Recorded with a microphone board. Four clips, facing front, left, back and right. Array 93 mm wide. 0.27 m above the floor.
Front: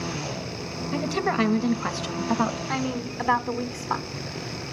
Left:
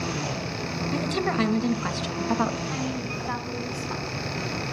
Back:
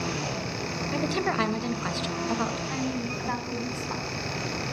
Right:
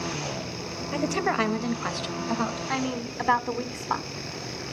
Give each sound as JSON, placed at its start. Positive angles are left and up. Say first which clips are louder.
{"t": 0.9, "sound": "a woman speaking", "louder": "right 1 dB, front 2 dB", "azimuth_deg": -85, "distance_m": 1.4}
{"t": 2.7, "sound": "a woman speaking", "louder": "right 1 dB, front 2 dB", "azimuth_deg": -50, "distance_m": 1.8}